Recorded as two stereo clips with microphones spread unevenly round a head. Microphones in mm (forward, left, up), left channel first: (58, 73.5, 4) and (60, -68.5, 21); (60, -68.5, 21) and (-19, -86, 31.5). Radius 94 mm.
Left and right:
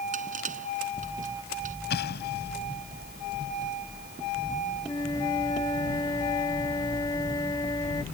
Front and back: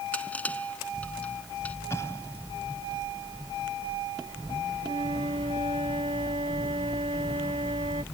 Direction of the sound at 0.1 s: 60° right.